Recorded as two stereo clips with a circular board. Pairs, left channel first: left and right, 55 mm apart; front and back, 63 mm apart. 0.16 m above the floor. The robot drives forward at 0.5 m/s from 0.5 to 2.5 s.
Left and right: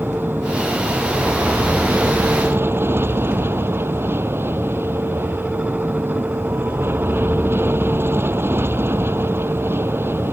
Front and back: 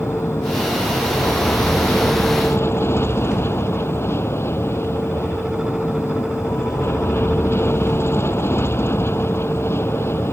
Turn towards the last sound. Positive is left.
turn(degrees=-50)